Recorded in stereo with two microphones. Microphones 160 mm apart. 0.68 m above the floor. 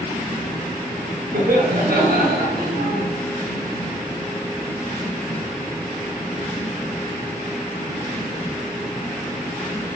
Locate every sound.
1.3 s laughter: 85° right, 6 m